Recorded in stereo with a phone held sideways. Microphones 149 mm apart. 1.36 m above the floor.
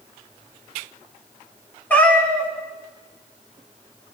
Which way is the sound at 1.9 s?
10° left (ahead or behind).